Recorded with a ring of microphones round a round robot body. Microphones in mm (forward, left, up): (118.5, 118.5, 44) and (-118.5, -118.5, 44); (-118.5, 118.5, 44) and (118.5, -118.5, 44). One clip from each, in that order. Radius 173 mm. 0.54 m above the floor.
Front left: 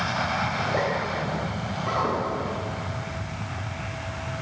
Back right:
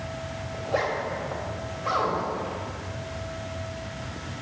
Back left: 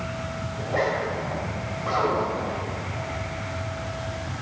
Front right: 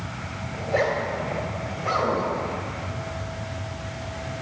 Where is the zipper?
125° right, 2 m.